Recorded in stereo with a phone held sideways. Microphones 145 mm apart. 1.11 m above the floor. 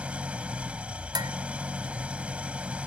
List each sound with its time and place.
0.0 s an engine running: 10° right (ahead or behind)
1.1 s dishes clattering: 25° right (ahead or behind)